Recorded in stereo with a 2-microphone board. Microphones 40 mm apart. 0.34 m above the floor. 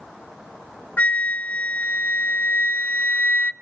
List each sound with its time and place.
1.0 s a flute: 40° left (ahead or behind), 0.6 m